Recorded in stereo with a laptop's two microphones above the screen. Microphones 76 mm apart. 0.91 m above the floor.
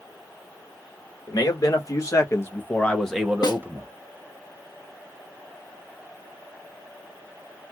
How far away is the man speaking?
About 1.4 m.